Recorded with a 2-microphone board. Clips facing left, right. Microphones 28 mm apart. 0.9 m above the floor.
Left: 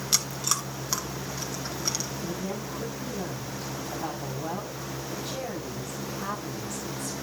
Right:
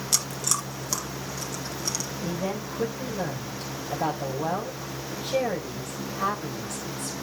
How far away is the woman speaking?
About 4.5 m.